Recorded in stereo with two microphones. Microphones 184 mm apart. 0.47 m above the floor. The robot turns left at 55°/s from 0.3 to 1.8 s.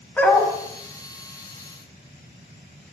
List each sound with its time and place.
0.2 s a dog barking: 10° left (ahead or behind), 1.0 m; by 0.5 s 25° left (ahead or behind), 1.0 m